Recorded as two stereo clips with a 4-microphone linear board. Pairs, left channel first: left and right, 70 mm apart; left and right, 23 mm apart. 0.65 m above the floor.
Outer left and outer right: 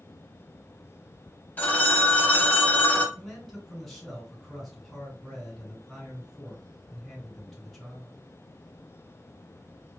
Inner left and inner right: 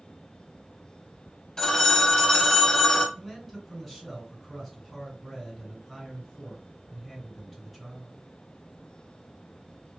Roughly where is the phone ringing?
Left.